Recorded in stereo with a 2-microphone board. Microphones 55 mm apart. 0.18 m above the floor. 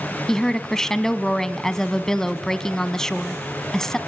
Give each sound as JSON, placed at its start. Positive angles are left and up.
{"t": 0.3, "sound": "a woman speaking", "side_deg": 10, "distance_m": 1.1}